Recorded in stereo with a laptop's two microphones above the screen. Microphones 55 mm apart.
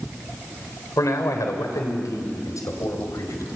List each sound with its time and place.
1.0 s a man speaking: 85° left, 3.5 m; by 3.6 s 90° left, 4.5 m